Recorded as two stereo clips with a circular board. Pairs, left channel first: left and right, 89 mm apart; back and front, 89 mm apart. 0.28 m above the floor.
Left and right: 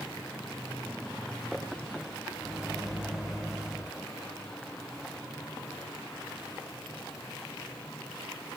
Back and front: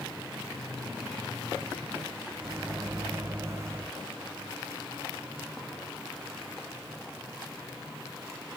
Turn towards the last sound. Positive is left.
turn(degrees=-10)